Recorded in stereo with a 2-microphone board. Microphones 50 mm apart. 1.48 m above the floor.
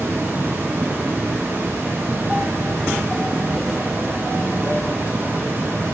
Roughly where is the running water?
Right.